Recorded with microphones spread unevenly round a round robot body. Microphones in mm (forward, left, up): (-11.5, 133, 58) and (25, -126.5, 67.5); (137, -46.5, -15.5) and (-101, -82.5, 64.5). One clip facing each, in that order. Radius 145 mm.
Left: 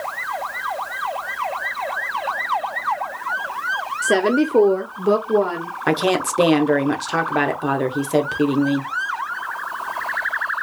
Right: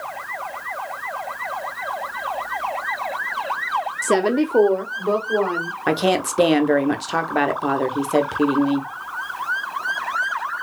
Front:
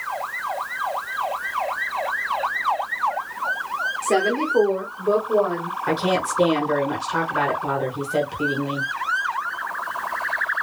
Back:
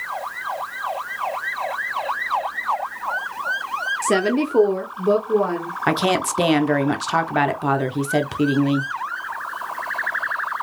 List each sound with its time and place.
4.0 s a woman speaking: 140° right, 0.7 m; by 5.7 s 125° left, 1.5 m
5.9 s a woman speaking: 175° right, 1.0 m